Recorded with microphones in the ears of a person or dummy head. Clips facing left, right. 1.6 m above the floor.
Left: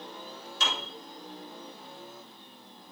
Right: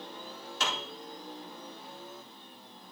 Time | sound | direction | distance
0.6 | a piano | 55° right (ahead or behind) | 3.5 m